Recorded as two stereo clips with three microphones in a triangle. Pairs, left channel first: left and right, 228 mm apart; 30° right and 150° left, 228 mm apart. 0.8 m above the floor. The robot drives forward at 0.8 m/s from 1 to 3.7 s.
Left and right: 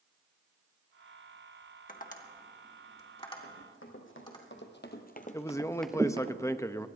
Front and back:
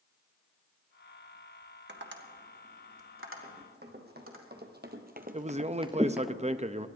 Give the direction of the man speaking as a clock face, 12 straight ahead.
7 o'clock.